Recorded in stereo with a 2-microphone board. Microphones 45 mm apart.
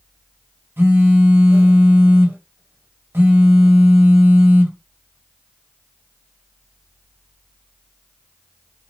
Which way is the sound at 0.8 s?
60° right (ahead or behind).